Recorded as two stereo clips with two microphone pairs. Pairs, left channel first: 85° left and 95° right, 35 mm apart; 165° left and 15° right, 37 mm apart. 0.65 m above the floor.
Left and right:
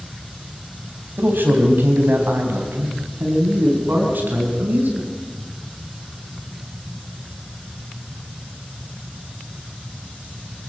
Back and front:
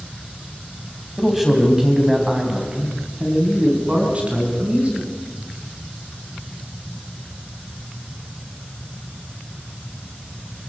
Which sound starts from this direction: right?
A man speaking, at 1.2 s.